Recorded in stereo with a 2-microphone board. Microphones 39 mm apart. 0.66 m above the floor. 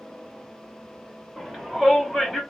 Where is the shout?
5° left (ahead or behind), 1.0 m.